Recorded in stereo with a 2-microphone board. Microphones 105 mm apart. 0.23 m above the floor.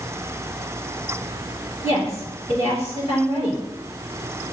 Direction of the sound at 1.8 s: 70° left (ahead or behind).